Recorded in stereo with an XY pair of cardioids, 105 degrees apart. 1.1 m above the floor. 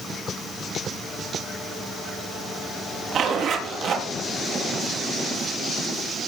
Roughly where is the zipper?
Ahead right.